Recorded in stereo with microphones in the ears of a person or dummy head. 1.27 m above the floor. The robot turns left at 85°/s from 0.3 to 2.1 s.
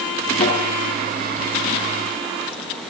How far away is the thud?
About 6.5 m.